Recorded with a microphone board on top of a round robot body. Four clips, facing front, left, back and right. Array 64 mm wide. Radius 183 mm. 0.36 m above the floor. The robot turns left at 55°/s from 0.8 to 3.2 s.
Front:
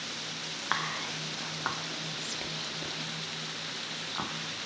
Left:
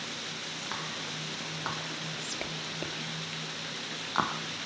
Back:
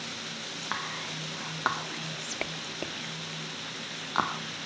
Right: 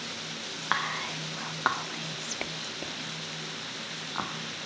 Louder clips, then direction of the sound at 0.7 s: Right 10 dB, front 3 dB; 70° right.